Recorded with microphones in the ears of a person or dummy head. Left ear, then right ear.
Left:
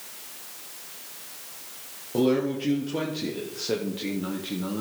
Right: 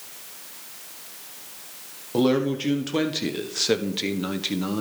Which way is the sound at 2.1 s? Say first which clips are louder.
Right 2 dB; 35° right (ahead or behind).